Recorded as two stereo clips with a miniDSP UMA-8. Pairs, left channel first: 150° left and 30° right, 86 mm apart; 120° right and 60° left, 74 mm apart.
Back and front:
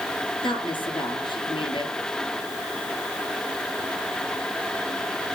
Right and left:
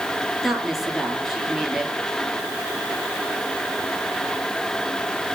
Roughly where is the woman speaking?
Behind left.